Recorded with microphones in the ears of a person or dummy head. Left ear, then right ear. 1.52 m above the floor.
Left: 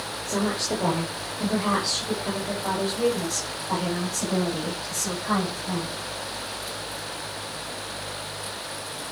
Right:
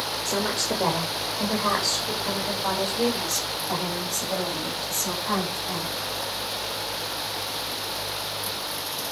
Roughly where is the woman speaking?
Right.